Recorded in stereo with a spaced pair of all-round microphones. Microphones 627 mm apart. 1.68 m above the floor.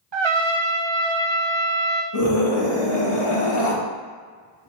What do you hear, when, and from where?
0.1 s a trumpet: 45° right (ahead or behind), 0.7 m
2.1 s a scream: 50° left (ahead or behind), 1.8 m